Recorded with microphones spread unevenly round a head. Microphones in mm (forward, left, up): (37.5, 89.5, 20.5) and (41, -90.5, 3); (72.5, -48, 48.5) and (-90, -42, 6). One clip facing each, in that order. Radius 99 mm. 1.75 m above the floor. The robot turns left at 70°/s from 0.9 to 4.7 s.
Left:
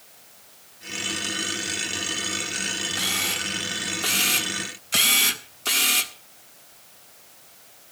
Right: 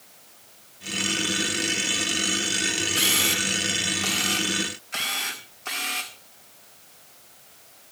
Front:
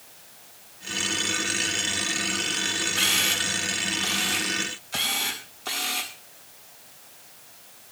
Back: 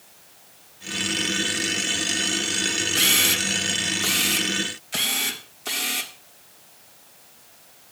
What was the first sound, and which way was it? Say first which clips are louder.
A camera shutter: right 4 dB, back 4 dB; 145° right.